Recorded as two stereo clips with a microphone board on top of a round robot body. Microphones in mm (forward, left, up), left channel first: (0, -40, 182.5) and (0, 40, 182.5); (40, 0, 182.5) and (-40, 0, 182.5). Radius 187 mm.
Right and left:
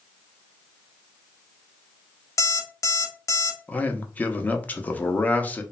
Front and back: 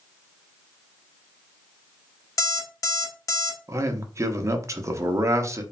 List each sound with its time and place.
2.4 s an alarm clock: 40° right, 0.8 m
3.7 s a man speaking: 150° right, 0.7 m